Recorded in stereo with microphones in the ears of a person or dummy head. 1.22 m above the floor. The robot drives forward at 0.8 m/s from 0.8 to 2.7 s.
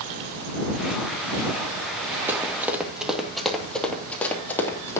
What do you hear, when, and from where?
2.3 s running footsteps: 15° right (ahead or behind), 2.5 m; by 5.0 s 15° left (ahead or behind), 3.5 m